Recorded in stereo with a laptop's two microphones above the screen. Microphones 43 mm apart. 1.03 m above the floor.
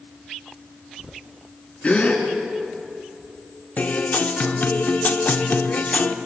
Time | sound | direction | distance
1.8 | a gasp | 35° left (ahead or behind) | 2.5 m
3.8 | a guitar | 45° left (ahead or behind) | 0.9 m